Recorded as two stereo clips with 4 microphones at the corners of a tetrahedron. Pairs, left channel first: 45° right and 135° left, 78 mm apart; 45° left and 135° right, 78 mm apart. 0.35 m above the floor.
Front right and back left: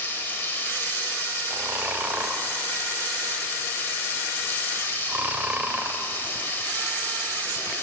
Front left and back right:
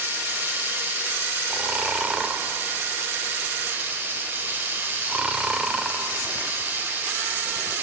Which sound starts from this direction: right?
Running water, at 0.0 s.